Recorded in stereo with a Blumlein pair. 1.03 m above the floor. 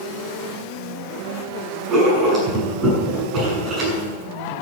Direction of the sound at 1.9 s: 25° right.